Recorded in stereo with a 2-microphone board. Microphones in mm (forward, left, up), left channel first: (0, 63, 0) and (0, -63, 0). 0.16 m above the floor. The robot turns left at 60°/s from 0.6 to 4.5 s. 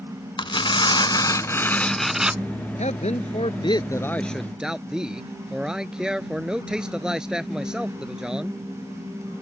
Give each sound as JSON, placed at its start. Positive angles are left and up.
{"t": 0.4, "sound": "tearing paper", "azimuth_deg": 90}
{"t": 2.8, "sound": "a man speaking", "azimuth_deg": 95}